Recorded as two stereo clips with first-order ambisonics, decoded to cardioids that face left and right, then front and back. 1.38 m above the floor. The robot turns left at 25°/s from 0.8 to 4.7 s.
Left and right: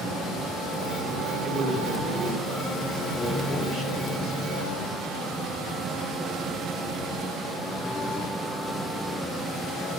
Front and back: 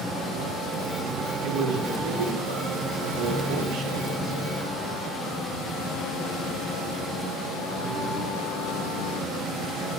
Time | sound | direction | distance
1.4 | a man speaking | 155° right | 2 m